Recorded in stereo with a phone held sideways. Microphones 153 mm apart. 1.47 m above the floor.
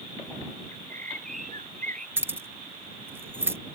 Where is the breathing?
No breathing in this recording.